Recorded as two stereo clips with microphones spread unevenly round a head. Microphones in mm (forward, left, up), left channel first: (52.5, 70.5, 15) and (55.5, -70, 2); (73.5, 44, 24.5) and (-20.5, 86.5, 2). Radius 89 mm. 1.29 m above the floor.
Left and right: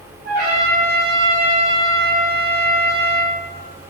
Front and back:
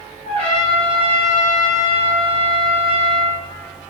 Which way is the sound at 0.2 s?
75° right.